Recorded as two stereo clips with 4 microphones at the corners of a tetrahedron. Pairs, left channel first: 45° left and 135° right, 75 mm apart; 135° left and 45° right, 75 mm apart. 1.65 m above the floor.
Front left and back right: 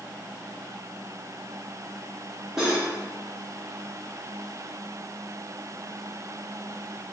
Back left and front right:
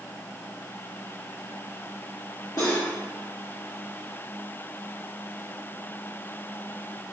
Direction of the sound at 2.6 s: 140° left.